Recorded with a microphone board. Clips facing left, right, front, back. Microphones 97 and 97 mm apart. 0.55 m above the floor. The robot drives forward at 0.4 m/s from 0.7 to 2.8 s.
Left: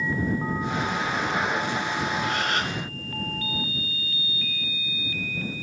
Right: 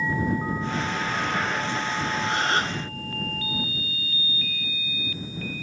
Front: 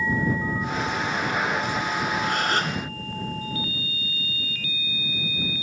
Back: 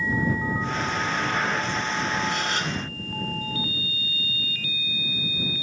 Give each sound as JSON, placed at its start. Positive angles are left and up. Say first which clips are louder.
{"t": 2.2, "sound": "a gasp", "louder": "right 2 dB, front 3 dB", "azimuth_deg": -30, "distance_m": 0.7}